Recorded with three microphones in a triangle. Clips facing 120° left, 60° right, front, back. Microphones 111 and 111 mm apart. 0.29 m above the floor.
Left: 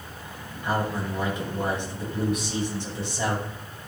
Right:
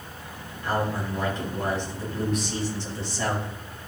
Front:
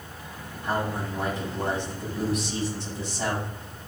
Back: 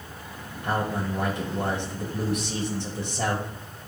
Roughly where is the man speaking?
Behind.